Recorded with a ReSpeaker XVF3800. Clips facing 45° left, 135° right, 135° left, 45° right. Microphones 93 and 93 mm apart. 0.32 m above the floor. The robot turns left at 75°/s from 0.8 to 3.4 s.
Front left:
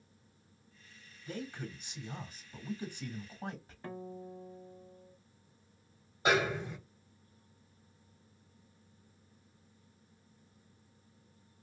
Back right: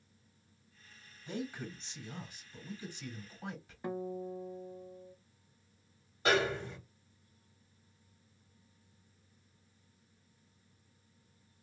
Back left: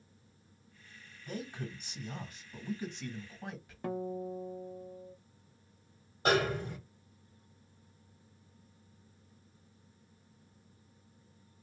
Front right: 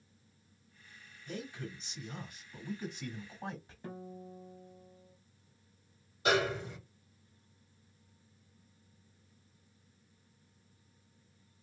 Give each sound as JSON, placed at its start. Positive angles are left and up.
{"t": 1.3, "sound": "a man speaking", "azimuth_deg": 165, "distance_m": 1.5}
{"t": 3.8, "sound": "a guitar", "azimuth_deg": 150, "distance_m": 0.5}
{"t": 6.2, "sound": "a snare drum", "azimuth_deg": 115, "distance_m": 1.8}